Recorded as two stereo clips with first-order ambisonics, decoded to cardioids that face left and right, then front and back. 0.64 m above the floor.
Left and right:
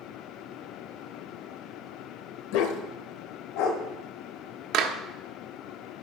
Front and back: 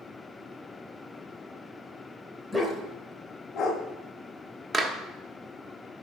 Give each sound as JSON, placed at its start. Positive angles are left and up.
{"t": 2.5, "sound": "a dog barking", "azimuth_deg": 95, "distance_m": 1.1}
{"t": 4.7, "sound": "a clap", "azimuth_deg": -110, "distance_m": 1.0}